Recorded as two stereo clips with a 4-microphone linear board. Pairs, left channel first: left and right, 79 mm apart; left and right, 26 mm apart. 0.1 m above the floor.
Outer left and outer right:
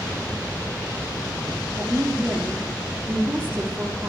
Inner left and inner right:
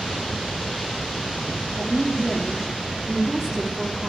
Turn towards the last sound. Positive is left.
turn(degrees=-25)  # may be behind; listen again after turning